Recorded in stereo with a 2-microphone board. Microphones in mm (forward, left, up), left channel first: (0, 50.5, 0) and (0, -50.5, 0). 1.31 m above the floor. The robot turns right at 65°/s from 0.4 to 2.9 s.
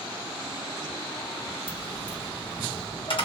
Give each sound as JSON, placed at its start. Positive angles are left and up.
{"t": 1.7, "sound": "a dropped coin", "side_deg": 25, "distance_m": 1.8}